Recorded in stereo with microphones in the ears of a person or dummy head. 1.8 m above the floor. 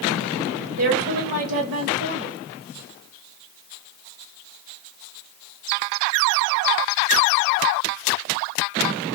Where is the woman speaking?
65° right (ahead or behind), 1.1 m.